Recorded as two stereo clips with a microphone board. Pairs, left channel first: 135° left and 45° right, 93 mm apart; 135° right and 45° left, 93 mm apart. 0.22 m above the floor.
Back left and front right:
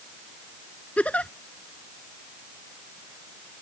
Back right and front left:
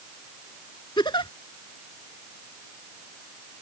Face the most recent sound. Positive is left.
turn(degrees=-150)